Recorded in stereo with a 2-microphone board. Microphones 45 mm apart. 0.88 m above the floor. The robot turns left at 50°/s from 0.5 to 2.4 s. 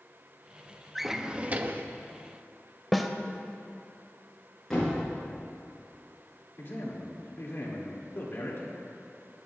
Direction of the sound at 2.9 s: 5° left (ahead or behind).